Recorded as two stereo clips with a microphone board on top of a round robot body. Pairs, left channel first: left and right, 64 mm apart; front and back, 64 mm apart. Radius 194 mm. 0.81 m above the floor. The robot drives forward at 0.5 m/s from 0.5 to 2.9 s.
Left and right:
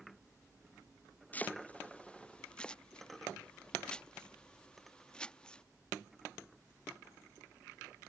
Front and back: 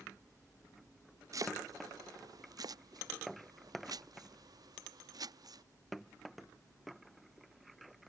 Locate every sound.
1.3 s chopping: 155° left; by 5.6 s 165° left